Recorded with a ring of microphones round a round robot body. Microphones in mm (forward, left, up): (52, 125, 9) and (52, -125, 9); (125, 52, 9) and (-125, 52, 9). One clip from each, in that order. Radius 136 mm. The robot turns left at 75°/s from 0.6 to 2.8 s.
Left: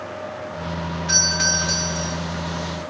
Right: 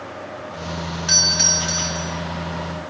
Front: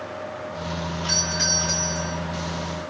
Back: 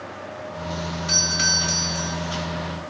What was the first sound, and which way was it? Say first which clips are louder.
A doorbell: right 2 dB, back 3 dB; 95° right.